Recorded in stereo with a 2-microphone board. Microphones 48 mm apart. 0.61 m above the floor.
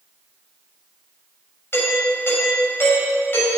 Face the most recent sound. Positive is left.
turn(degrees=50)  # may be behind; listen again after turning